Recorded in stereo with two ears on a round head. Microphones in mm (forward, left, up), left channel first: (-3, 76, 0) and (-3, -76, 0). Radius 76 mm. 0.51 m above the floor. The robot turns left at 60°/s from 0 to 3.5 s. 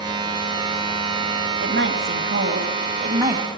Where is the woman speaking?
60° right, 3 m; by 3.5 s 175° right, 3 m.